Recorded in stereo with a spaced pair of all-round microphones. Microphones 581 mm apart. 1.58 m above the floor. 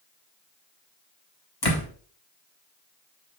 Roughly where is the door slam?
Left.